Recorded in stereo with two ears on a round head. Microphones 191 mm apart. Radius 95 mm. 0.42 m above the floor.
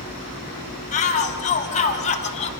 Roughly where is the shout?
Left.